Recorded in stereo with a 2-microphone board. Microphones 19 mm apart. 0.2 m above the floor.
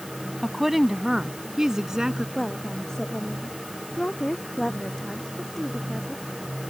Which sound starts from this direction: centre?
A woman speaking, at 0.4 s.